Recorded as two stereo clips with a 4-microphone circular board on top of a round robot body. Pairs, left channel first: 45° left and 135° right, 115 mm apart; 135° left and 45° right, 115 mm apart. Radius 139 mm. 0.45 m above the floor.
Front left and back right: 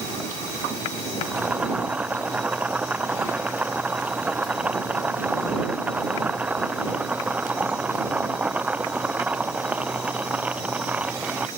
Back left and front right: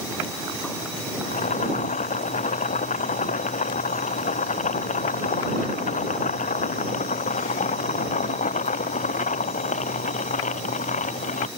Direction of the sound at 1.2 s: 145° left.